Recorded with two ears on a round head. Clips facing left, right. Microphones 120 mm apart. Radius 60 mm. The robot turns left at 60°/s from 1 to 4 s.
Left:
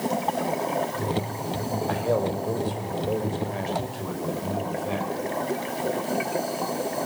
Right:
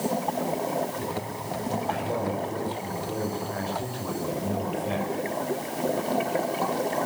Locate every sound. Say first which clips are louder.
1.9 s a man speaking: left 7 dB; 130° left, 6 m; by 5.1 s straight ahead, 6 m